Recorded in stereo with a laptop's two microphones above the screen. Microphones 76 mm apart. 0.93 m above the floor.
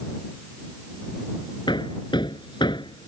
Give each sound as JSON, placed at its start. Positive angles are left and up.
{"t": 1.7, "sound": "hammering", "side_deg": 85}